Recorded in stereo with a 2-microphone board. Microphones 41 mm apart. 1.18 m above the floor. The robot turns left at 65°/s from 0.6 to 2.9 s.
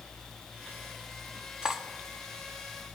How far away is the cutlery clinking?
About 0.9 m.